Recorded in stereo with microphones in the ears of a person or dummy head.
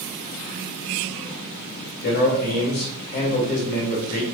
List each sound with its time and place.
2.0 s a man speaking: 55° left (ahead or behind), 1.8 m